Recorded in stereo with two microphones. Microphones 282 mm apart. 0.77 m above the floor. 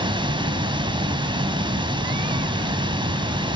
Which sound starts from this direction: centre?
Running water, at 0.0 s.